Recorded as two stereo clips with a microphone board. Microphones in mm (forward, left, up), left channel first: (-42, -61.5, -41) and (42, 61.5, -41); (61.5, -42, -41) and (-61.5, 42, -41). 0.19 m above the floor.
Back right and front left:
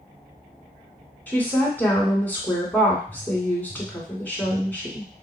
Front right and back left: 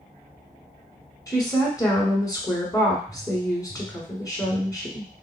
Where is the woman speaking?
60° right, 1.0 m.